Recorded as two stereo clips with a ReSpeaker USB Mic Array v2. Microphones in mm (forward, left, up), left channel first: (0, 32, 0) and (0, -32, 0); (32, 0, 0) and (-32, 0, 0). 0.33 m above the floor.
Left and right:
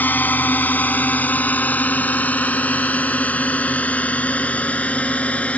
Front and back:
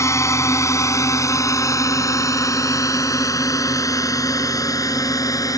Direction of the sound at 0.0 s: 30° left.